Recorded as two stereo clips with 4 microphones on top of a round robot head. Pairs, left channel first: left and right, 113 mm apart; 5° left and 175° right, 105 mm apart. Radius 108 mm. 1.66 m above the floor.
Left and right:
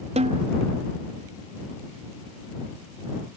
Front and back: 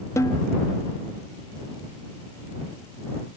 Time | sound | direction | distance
0.2 | a snare drum | 65° right | ?